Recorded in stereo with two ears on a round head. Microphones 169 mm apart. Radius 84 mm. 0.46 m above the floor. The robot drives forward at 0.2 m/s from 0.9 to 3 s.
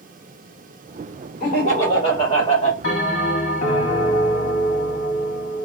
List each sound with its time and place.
1.4 s laughter: 40° left (ahead or behind), 1.8 m
2.8 s a bell: 75° left (ahead or behind), 1.7 m